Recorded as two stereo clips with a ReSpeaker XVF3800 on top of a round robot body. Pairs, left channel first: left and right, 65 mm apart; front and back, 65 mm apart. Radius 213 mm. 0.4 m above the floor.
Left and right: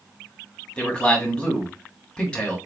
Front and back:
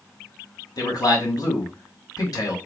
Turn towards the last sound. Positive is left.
turn(degrees=15)